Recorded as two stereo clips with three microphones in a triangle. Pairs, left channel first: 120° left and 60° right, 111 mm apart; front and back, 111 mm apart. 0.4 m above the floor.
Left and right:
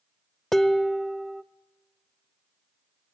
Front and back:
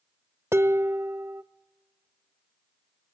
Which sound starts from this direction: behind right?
Dishes clattering, at 0.5 s.